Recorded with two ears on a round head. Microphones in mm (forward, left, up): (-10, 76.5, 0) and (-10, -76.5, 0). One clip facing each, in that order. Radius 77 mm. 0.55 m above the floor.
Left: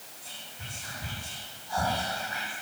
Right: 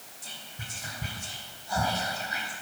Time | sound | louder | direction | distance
0.2 | whispering | right 2 dB | 70° right (ahead or behind) | 4 m